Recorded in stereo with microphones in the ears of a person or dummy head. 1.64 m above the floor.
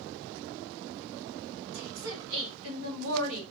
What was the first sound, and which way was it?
A woman speaking, 80° right.